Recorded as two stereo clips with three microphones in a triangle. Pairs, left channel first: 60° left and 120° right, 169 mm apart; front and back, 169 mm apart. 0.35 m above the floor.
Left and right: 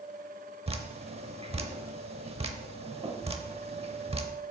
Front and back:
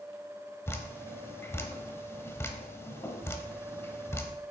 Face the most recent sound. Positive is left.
turn(degrees=-70)